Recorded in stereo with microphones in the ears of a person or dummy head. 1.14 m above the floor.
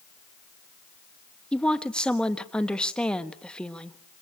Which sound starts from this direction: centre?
A woman speaking, at 1.5 s.